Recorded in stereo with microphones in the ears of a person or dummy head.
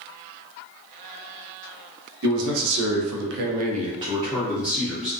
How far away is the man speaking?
About 0.9 m.